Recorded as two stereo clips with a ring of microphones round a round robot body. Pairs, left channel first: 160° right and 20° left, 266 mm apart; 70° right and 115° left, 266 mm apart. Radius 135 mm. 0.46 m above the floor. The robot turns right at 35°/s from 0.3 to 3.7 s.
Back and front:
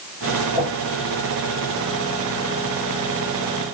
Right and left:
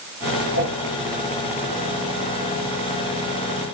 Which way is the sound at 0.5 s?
70° right.